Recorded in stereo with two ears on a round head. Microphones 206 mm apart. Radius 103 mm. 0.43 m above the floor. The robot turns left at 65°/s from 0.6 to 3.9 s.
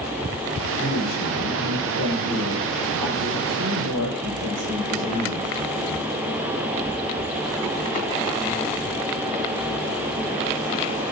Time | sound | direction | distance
0.8 | a man speaking | 130° left | 10 m